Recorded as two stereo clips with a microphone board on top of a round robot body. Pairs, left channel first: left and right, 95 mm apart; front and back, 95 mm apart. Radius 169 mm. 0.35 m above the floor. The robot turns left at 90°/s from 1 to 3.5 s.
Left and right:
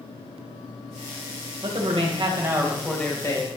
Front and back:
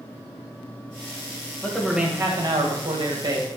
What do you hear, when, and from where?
1.6 s a man speaking: 70° right, 2.5 m; by 3.5 s 125° left, 2.5 m